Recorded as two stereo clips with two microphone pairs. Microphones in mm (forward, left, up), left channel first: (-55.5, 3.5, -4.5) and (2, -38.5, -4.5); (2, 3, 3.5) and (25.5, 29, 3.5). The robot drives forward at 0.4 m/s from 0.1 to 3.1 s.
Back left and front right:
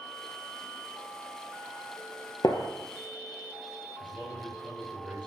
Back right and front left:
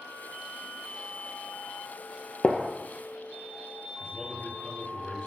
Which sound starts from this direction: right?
A man speaking, at 4.0 s.